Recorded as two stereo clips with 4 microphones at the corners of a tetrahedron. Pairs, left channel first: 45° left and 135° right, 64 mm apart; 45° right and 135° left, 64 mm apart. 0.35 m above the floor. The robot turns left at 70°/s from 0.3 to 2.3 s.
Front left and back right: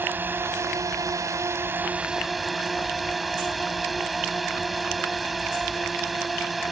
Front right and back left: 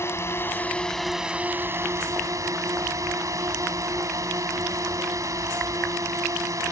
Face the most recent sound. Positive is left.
turn(degrees=135)